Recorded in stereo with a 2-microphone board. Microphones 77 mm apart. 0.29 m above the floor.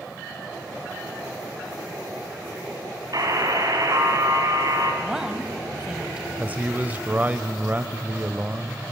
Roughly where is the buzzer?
Right.